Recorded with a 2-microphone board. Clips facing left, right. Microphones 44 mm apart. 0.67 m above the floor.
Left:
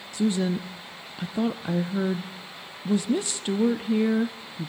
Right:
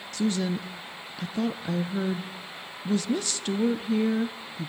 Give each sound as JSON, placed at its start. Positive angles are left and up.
{"t": 0.1, "sound": "a woman speaking", "side_deg": 20, "distance_m": 0.6}